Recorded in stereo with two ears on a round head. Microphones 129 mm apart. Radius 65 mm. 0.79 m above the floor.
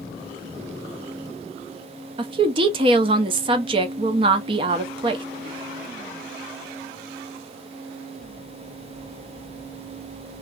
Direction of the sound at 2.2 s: 40° right (ahead or behind).